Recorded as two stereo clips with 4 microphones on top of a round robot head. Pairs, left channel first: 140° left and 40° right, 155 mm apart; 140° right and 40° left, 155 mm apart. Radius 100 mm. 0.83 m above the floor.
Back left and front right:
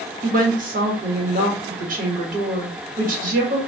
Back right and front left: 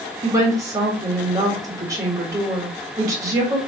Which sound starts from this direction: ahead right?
A woman speaking, at 0.2 s.